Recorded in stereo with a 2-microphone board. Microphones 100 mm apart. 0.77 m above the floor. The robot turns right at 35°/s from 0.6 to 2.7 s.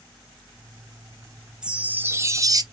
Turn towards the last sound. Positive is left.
turn(degrees=-130)